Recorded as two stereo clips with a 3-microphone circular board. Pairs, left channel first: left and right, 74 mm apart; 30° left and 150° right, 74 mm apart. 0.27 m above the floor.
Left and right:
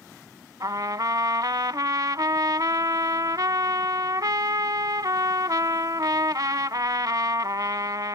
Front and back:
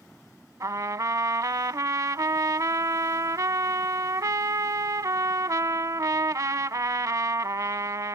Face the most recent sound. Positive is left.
turn(degrees=-115)